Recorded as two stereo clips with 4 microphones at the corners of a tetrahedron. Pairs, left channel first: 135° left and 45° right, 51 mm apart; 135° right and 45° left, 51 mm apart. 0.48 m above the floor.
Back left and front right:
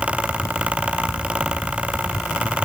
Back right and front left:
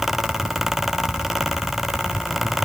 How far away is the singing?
I don't hear singing.